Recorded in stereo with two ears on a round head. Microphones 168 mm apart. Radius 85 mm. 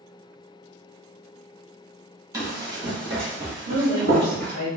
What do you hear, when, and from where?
2.3 s running footsteps: 15° right (ahead or behind), 1.3 m; by 4.5 s 55° right (ahead or behind), 1.5 m
3.7 s a woman speaking: 70° right (ahead or behind), 1.1 m